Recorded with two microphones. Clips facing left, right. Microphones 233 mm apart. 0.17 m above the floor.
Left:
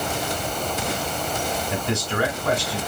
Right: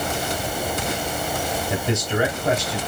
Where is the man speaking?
25° right (ahead or behind), 1.6 m.